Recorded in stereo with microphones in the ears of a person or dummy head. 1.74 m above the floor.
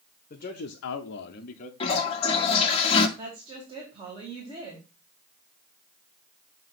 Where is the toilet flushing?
35° left (ahead or behind), 1.3 m.